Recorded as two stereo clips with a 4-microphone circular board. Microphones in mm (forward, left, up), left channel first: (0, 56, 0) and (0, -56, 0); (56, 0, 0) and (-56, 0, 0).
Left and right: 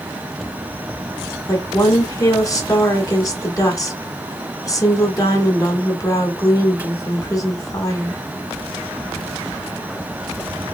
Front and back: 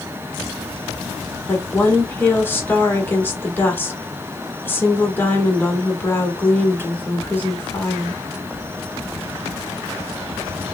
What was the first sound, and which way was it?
A woman speaking, 60° left.